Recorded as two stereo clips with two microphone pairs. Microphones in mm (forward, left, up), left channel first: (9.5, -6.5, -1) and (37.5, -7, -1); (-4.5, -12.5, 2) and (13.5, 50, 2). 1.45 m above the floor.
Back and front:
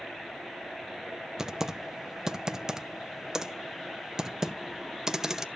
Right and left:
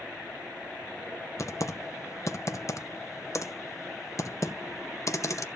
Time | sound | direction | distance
1.4 | typing on a keyboard | 65° right | 0.8 m